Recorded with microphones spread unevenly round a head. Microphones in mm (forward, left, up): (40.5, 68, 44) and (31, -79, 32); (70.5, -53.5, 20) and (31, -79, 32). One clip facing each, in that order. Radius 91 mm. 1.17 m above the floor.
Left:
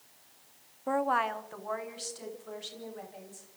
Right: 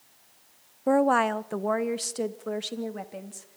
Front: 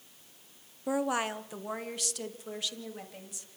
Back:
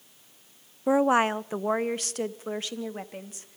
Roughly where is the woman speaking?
Right.